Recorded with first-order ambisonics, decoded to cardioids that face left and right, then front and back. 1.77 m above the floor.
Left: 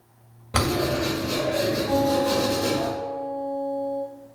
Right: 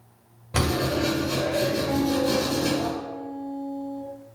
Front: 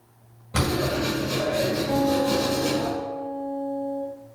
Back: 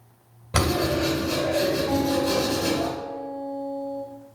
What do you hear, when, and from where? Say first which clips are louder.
0.5 s writing: left 1 dB, back 2 dB; 135° left, 1.7 m
1.9 s a guitar: left 2 dB, front 1 dB; 115° left, 1.8 m